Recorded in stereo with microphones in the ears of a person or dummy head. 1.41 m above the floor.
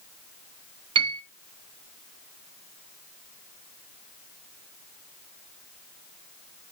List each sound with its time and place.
0.9 s a piano: 25° right (ahead or behind), 0.7 m